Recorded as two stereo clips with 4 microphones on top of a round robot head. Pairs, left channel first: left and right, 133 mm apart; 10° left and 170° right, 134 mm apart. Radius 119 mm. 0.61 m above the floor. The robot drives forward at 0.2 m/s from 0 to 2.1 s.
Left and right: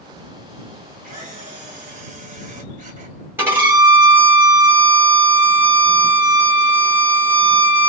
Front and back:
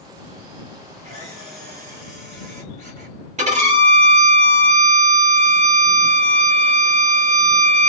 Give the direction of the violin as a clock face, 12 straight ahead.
5 o'clock.